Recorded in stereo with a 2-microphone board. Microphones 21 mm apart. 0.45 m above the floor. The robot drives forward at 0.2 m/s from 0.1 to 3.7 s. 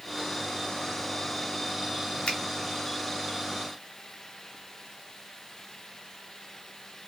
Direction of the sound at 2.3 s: 75° left (ahead or behind).